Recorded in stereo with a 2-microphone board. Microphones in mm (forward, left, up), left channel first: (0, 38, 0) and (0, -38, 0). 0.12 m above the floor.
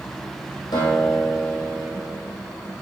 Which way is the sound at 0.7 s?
75° left (ahead or behind).